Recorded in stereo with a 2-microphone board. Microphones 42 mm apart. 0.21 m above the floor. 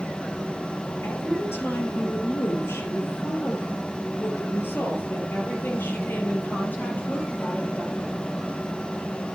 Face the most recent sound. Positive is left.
turn(degrees=50)  # may be behind; listen again after turning